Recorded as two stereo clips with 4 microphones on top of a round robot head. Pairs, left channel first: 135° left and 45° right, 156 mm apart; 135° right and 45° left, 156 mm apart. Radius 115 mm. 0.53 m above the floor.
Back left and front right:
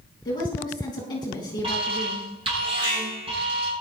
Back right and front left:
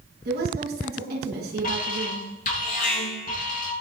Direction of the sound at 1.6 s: 100° right.